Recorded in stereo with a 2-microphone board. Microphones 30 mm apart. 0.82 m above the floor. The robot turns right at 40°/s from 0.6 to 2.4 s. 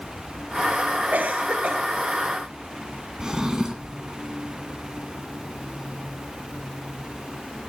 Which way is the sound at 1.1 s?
75° right (ahead or behind).